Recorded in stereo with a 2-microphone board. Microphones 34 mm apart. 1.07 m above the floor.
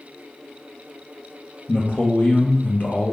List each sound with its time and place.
1.7 s a man speaking: 35° left (ahead or behind), 0.6 m; by 3.1 s 40° left (ahead or behind), 0.7 m